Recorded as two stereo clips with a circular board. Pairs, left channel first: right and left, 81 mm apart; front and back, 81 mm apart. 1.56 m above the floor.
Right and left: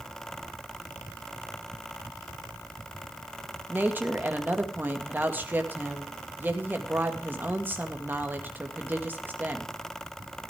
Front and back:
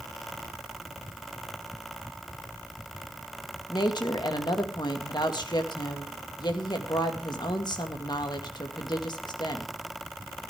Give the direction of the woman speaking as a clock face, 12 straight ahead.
11 o'clock.